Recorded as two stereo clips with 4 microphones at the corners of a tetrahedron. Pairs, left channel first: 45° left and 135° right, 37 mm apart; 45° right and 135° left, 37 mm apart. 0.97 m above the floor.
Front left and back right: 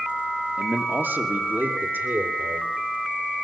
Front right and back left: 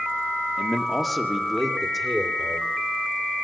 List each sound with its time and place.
0.6 s a man speaking: 130° right, 2 m; by 2.7 s 140° right, 4 m